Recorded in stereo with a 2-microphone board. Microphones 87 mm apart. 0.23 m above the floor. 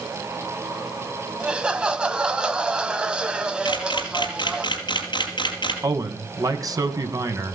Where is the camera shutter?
60° left (ahead or behind), 5 m.